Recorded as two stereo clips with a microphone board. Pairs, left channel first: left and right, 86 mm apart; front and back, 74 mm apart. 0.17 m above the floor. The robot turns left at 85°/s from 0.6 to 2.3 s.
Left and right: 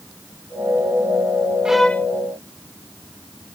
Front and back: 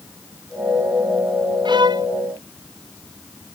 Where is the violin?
170° right; by 2.1 s 155° left.